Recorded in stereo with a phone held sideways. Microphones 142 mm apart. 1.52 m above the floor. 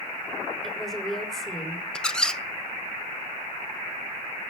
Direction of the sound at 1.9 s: 5° left (ahead or behind).